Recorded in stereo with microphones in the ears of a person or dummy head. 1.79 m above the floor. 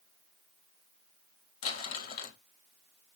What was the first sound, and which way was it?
Crumpling, 40° left (ahead or behind).